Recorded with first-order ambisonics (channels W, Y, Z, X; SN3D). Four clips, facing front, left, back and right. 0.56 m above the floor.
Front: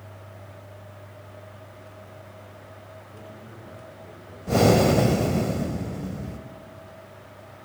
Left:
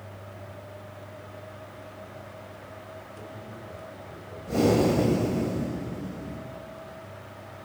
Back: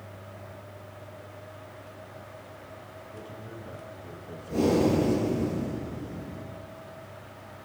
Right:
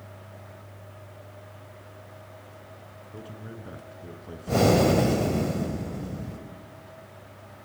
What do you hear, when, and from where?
3.1 s a man speaking: 95° right, 6 m; by 5.5 s 105° right, 6 m
4.5 s breathing: 25° right, 3 m